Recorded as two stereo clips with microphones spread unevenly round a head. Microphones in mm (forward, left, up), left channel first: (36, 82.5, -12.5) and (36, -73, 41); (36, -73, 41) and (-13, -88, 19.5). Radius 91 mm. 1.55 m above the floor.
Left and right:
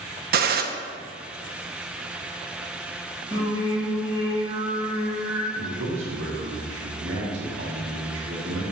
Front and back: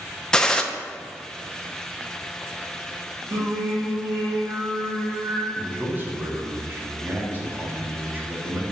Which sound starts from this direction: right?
A man speaking, at 5.6 s.